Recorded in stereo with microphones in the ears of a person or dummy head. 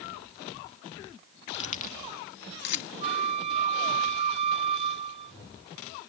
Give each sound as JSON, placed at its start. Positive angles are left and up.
{"t": 1.5, "sound": "keys jangling", "side_deg": 35}
{"t": 3.0, "sound": "a flute", "side_deg": -35}